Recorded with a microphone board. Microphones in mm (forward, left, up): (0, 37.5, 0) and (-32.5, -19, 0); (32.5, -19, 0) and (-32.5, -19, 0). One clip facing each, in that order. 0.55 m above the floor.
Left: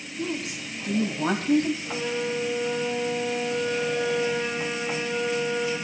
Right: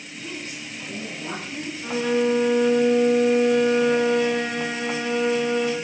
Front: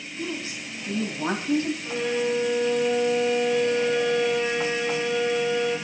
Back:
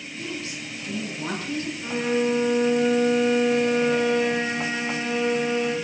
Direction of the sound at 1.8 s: 130° right.